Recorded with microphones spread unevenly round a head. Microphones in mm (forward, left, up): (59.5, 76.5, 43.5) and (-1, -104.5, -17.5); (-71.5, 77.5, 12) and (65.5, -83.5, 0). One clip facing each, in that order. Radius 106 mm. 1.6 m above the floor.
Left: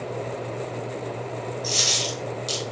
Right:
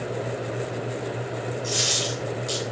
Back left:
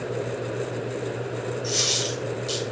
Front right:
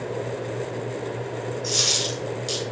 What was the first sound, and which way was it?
A dropped coin, 25° left.